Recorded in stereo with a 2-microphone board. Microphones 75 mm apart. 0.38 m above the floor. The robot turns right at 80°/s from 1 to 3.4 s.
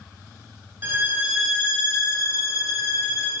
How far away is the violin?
About 1.7 m.